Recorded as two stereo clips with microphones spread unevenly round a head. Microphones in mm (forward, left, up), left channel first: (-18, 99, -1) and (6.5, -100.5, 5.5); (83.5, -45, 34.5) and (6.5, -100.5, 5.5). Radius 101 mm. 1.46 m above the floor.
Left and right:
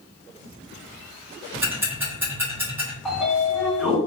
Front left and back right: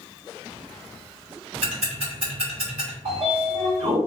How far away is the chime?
I don't hear a chime.